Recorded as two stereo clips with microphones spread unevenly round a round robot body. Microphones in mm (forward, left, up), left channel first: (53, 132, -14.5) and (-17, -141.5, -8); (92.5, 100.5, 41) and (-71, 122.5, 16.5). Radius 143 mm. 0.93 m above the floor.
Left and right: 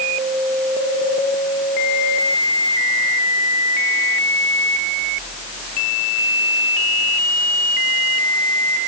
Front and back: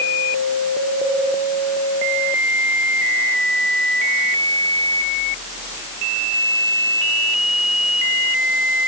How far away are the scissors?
I don't hear scissors.